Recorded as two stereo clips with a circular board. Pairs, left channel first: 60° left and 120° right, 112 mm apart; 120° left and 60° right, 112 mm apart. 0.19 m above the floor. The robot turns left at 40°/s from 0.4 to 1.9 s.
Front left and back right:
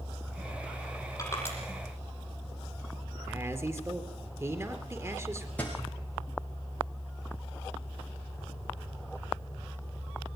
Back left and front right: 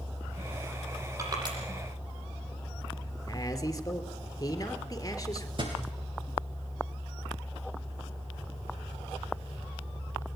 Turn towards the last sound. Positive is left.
turn(degrees=-15)